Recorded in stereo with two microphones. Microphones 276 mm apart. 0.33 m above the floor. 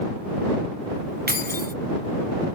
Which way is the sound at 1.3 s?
35° right (ahead or behind).